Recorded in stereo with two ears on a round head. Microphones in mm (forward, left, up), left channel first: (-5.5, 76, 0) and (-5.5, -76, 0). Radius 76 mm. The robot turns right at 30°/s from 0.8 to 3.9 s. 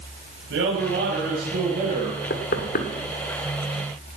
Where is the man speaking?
80° right, 5 m; by 2.2 s 40° right, 5 m.